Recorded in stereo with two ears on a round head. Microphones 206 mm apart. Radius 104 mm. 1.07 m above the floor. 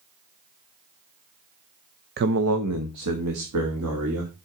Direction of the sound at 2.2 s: 45° right (ahead or behind).